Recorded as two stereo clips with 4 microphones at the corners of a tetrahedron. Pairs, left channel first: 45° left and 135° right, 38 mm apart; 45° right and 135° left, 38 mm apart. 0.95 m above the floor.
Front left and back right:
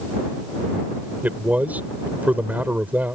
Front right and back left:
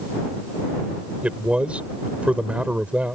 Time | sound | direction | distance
1.2 | a man speaking | 170° right | ?